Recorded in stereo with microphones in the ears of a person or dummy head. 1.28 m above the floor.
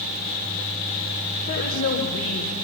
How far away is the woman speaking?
About 5 m.